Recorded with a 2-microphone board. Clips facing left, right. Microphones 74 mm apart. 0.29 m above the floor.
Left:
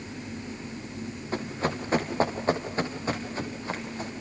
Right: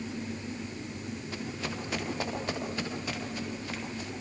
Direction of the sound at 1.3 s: 40° left (ahead or behind).